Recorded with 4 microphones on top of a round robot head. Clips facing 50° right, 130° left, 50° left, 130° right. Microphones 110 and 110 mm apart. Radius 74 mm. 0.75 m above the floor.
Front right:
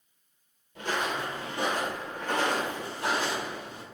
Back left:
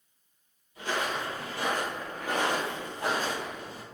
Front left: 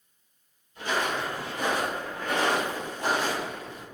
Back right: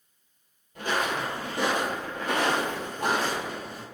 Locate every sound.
0.8 s footsteps: 85° right, 1.0 m; by 3.8 s 175° left, 1.4 m